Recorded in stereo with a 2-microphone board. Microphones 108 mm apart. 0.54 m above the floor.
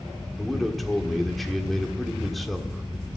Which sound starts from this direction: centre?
A man speaking, at 0.4 s.